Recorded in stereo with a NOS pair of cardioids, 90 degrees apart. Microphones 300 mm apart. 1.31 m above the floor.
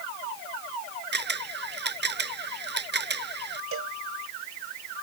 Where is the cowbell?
50° right.